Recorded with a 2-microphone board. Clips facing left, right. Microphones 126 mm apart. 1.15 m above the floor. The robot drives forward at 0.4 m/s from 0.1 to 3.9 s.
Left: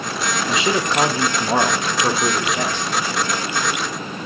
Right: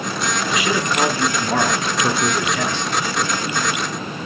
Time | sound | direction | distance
0.5 | a man speaking | 25° left (ahead or behind) | 0.9 m